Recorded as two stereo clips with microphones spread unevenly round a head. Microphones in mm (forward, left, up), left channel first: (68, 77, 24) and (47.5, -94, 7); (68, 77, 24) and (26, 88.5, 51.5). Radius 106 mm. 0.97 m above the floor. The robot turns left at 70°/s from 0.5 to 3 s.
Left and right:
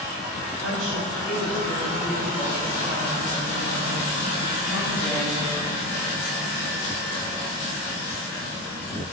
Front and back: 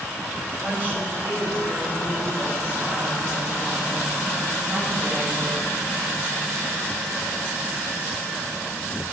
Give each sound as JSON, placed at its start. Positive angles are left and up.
{"t": 0.6, "sound": "a woman speaking", "azimuth_deg": -105, "distance_m": 6.0}